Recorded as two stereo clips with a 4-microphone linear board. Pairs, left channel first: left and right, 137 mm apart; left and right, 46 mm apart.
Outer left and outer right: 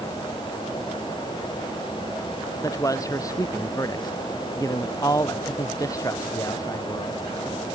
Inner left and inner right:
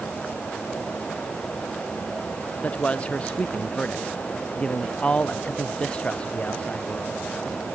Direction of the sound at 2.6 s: 25° left (ahead or behind).